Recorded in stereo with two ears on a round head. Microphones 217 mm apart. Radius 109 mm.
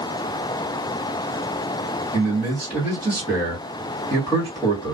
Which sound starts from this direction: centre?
A man speaking, at 2.1 s.